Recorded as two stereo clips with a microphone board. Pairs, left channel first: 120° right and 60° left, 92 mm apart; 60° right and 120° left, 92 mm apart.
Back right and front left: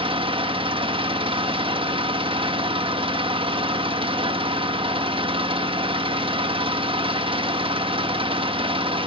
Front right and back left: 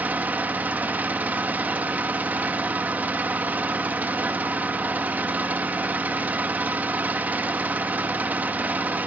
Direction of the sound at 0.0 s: 50° left.